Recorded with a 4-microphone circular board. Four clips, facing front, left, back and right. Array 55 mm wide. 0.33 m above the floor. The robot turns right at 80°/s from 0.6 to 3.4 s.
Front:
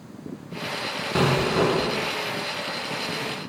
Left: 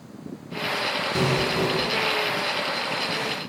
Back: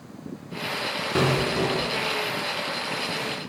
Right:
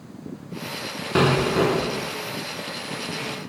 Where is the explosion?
90° right, 0.7 m; by 2.1 s 10° right, 0.7 m.